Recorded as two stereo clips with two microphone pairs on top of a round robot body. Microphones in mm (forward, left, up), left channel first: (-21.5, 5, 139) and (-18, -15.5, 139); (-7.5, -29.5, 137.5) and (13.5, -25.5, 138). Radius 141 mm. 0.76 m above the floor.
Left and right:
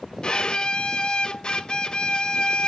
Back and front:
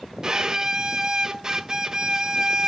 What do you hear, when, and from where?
0.2 s a violin: 60° left, 0.8 m